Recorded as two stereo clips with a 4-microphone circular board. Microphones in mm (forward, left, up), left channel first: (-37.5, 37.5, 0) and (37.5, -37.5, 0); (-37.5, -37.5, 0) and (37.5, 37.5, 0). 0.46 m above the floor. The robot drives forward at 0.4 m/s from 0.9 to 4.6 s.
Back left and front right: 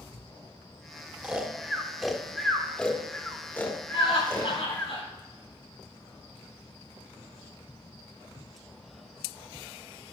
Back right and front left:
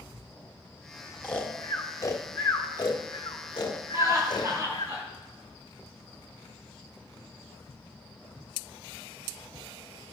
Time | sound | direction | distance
1.2 | snoring | 90° right | 1.1 m
3.9 | laughter | 105° left | 4.5 m